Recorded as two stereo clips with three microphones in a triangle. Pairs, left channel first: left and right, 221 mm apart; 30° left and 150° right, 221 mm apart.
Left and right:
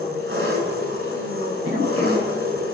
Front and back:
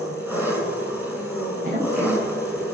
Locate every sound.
0.0 s an engine running: 70° right, 6 m
1.6 s a woman speaking: 100° right, 8 m